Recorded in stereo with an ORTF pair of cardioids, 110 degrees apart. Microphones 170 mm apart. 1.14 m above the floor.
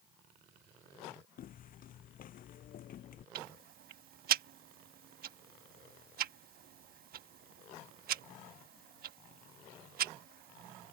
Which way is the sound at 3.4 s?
60° right.